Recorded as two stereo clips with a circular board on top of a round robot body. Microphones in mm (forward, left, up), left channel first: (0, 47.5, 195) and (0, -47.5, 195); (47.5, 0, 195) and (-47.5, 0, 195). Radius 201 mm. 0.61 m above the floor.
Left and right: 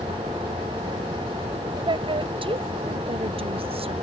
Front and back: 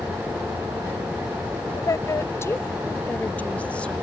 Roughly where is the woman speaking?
Ahead right.